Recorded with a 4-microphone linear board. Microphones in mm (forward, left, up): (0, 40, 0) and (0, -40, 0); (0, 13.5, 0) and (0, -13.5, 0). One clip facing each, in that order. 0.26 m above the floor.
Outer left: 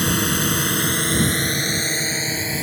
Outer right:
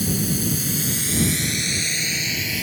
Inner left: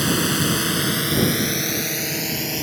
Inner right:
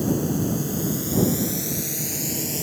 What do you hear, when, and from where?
0.0 s a drone: 65° left (ahead or behind); by 2.6 s 30° left (ahead or behind)